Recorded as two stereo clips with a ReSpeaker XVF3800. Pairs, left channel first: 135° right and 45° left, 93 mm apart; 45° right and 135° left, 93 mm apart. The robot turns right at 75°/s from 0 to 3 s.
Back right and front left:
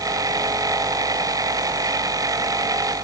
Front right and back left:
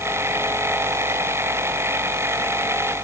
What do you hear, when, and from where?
Only background noise.